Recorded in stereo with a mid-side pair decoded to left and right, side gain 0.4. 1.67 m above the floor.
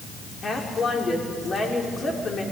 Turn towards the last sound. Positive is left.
turn(degrees=45)